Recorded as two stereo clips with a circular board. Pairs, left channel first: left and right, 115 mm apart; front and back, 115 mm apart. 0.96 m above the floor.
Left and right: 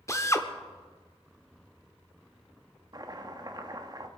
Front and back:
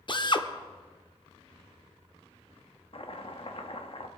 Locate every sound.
0.1 s a drill: 35° left, 0.8 m
2.9 s chopping: 35° right, 0.9 m